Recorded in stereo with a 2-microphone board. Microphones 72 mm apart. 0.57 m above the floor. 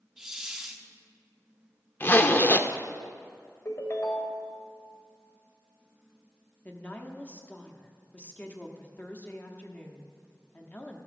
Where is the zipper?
30° left (ahead or behind), 0.6 m.